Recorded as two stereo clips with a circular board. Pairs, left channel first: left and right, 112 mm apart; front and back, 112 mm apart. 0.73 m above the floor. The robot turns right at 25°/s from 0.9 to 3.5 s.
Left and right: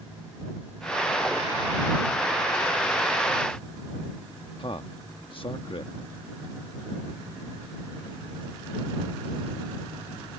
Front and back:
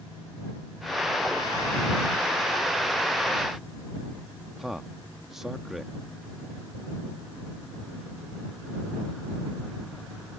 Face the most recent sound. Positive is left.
turn(degrees=95)